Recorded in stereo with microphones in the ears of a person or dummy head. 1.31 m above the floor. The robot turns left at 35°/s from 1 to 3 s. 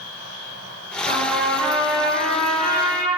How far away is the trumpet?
About 1.0 m.